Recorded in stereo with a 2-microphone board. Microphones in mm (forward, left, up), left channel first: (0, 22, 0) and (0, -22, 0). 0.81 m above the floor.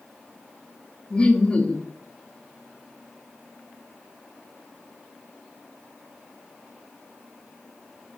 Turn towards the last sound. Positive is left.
turn(degrees=25)  # may be behind; listen again after turning